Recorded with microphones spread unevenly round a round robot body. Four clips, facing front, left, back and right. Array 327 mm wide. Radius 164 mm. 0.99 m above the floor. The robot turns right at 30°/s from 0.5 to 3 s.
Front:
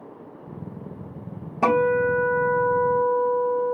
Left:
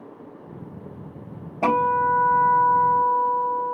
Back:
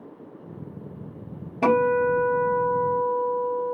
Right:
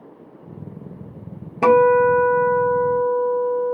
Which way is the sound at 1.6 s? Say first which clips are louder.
Right 7 dB, even; 100° right.